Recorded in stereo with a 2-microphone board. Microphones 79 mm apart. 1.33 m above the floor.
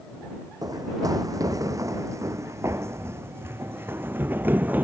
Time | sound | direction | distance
0.6 | running footsteps | 50° right (ahead or behind) | ?